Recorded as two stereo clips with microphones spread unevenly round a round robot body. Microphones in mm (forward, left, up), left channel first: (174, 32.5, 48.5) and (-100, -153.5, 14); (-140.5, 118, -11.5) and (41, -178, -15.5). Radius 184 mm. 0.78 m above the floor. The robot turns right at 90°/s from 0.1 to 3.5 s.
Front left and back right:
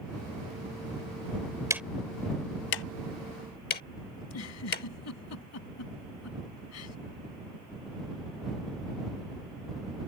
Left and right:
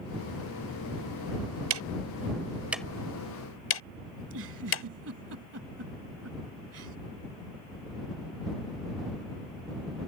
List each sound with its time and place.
1.7 s ticking: 65° right; by 4.8 s 95° left
4.2 s a giggle: 5° right